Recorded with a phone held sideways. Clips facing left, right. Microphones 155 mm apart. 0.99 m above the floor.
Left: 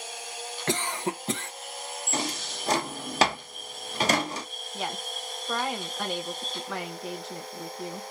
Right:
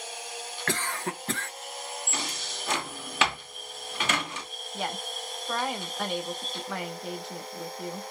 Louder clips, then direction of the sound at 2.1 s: Left 5 dB; 40° left (ahead or behind).